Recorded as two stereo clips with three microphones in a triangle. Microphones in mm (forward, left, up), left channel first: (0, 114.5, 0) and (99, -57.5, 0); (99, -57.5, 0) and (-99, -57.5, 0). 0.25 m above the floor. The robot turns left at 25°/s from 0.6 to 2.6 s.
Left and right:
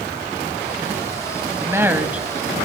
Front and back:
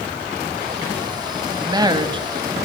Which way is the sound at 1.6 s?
125° right.